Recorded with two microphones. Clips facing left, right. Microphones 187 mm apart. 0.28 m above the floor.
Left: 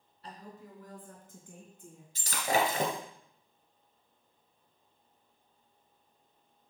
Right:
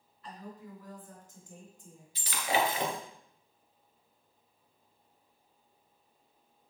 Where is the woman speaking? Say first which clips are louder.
Right 2 dB; 40° left (ahead or behind), 4 m; by 2.0 s 65° left (ahead or behind), 3.5 m.